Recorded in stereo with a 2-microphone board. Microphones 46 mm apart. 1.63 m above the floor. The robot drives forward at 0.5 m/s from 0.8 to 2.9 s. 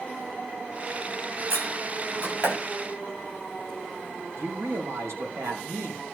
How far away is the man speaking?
About 3 m.